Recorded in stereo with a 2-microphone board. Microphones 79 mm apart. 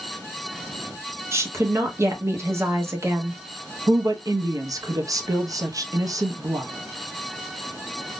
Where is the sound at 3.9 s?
45° right (ahead or behind), 0.6 m.